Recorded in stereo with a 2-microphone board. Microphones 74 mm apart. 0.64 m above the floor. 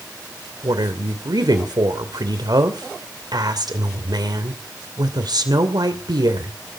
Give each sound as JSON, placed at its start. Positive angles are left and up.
{"t": 0.6, "sound": "a woman speaking", "side_deg": -65, "distance_m": 2.5}